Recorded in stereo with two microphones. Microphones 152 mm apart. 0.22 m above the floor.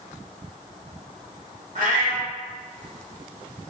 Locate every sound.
1.8 s a cat meowing: 65° right (ahead or behind), 1.6 m